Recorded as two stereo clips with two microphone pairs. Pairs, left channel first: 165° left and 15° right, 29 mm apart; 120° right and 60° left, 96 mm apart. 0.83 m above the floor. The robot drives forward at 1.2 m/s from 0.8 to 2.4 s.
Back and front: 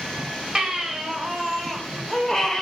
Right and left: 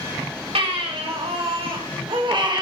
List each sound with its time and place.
0.6 s a baby crying: 50° left, 3 m; by 2.6 s 95° left, 2 m